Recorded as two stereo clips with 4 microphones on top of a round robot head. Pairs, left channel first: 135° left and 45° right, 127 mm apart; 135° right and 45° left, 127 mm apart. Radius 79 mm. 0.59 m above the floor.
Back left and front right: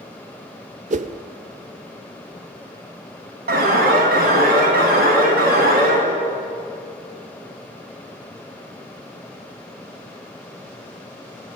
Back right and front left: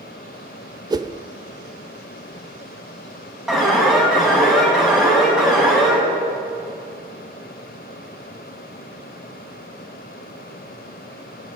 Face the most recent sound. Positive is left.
turn(degrees=-40)